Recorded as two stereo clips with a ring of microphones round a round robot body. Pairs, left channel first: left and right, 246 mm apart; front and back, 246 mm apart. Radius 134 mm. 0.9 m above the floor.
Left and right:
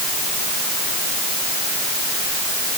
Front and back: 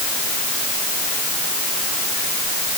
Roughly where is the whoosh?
I don't hear a whoosh.